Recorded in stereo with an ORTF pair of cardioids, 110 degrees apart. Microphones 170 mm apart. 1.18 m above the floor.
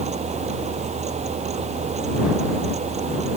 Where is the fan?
40° right.